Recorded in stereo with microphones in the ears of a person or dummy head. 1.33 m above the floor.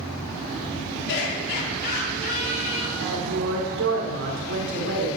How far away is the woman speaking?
About 3.5 m.